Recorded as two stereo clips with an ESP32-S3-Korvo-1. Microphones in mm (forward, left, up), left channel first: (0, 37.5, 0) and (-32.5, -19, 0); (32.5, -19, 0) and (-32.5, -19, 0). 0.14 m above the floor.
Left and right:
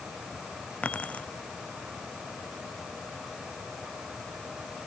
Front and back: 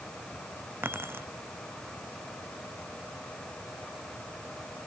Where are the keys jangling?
125° left.